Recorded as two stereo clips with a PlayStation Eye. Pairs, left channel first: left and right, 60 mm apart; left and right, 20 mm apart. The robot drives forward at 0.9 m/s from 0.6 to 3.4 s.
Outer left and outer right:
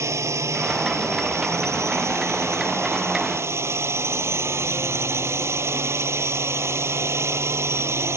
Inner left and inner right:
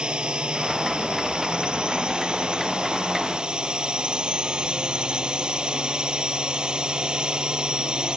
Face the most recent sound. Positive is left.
turn(degrees=-50)  # may be behind; listen again after turning